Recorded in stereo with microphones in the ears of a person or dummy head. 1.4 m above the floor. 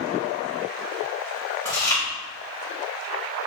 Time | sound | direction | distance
1.6 | chewing | 15° left (ahead or behind) | 2.5 m